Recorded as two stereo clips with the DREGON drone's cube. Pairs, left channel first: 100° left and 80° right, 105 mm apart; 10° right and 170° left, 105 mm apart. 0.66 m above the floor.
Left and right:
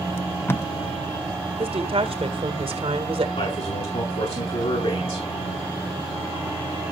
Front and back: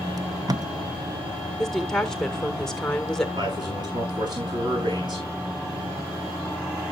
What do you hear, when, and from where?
0.2 s tape being pulled: 155° left, 0.5 m
1.6 s a woman speaking: 95° right, 1.7 m
3.4 s a man speaking: 125° left, 7 m